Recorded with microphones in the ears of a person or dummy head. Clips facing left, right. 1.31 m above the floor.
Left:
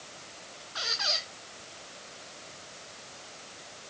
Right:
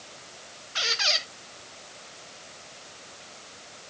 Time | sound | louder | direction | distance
0.8 | a squeak | right 4 dB | 40° right (ahead or behind) | 0.7 m